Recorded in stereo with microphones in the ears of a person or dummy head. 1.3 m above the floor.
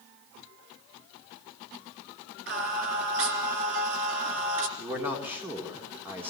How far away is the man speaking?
About 3.5 m.